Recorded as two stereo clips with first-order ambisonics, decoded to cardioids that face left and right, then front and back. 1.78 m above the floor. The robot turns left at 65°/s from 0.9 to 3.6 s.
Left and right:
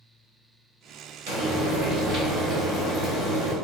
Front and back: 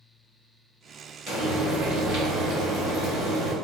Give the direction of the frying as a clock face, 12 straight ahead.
4 o'clock.